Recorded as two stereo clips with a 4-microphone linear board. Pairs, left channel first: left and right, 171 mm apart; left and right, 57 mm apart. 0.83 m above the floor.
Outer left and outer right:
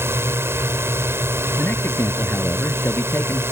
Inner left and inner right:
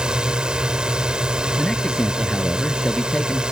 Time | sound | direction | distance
0.0 | a drone | 15° right (ahead or behind) | ?
1.6 | a man speaking | 10° left (ahead or behind) | ?